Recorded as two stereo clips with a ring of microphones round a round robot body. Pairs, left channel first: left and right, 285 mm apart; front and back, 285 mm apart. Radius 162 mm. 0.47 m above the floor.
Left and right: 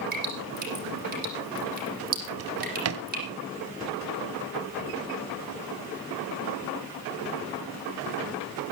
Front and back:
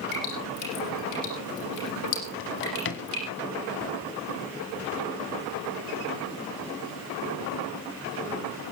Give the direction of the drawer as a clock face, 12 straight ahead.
2 o'clock.